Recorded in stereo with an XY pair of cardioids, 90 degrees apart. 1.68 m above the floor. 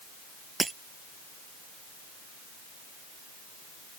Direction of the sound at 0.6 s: 25° right.